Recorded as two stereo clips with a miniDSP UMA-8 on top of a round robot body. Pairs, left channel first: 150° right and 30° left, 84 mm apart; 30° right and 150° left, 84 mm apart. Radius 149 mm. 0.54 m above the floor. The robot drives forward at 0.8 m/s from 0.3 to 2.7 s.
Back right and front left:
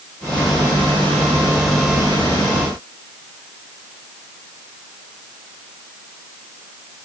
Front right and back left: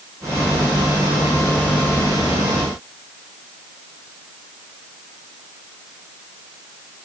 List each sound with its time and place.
Only background noise.